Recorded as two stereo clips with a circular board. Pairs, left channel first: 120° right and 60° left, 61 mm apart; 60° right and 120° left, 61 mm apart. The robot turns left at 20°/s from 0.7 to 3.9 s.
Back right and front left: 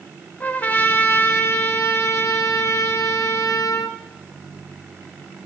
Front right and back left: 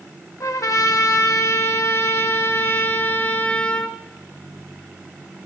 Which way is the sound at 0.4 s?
65° right.